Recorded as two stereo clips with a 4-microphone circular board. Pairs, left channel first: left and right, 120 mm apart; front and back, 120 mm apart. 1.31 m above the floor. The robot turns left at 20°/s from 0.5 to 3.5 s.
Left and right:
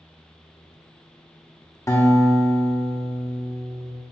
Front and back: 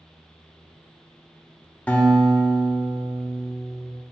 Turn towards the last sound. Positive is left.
turn(degrees=35)